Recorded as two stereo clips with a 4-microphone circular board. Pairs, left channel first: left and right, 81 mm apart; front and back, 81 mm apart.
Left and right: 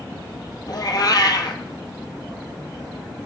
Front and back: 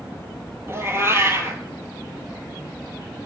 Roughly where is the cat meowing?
Behind left.